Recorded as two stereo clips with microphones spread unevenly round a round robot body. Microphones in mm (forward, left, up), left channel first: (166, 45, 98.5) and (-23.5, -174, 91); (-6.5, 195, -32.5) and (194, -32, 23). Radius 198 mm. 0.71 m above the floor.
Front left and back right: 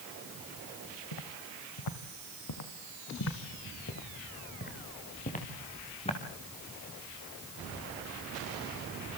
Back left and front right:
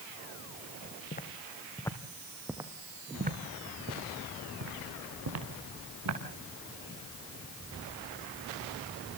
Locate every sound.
1.1 s footsteps: 70° left, 3 m; by 6.2 s 20° right, 6 m